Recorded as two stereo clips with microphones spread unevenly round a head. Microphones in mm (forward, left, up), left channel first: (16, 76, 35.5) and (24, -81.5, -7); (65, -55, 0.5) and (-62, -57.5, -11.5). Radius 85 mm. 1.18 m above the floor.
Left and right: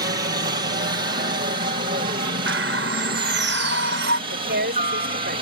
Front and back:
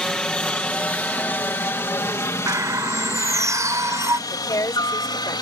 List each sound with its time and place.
0.0 s a helicopter: 80° right; by 5.4 s 50° right
2.5 s a bird: 110° right
4.3 s a woman speaking: 60° right